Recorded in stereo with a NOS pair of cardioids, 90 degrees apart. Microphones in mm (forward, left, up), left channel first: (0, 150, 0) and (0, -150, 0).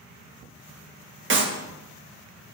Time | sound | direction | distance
1.3 | a clap | 40° right | 1.7 m